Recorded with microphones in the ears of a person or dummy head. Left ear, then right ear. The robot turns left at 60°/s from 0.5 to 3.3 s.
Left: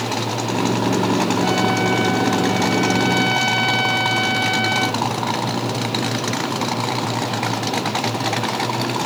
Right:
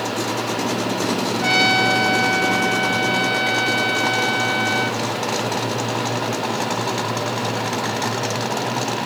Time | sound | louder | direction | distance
1.4 | a trumpet | right 3 dB | 55° right | ?